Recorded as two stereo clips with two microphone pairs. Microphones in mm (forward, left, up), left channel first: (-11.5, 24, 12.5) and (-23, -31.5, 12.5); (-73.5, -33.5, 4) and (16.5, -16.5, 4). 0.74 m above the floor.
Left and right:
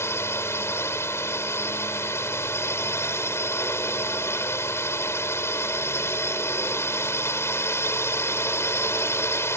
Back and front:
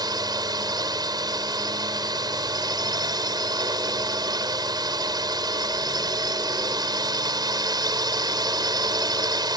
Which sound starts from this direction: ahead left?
A drone, at 0.0 s.